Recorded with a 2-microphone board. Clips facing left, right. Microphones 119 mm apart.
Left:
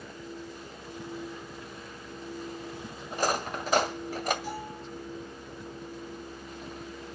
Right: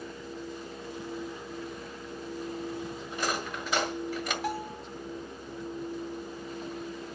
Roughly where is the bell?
Right.